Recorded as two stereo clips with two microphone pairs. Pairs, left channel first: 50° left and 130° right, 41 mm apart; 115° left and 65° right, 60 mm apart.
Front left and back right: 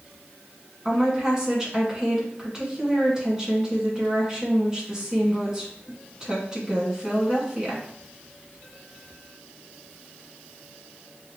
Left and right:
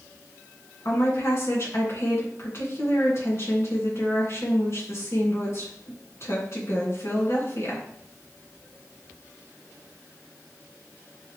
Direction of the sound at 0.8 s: 155° left.